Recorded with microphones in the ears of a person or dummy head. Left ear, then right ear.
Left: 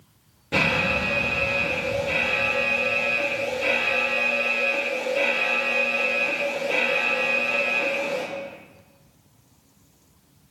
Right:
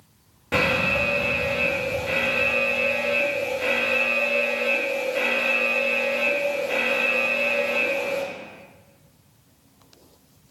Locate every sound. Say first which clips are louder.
0.5 s an alarm: right 1 dB; 40° right (ahead or behind), 3 m